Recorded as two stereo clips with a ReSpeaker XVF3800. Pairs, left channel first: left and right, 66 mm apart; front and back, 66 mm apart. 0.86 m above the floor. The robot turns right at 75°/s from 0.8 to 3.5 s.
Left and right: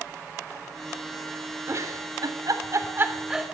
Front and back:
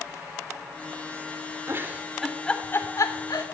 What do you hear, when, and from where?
1.7 s a giggle: 135° right, 3.5 m; by 3.5 s straight ahead, 3.5 m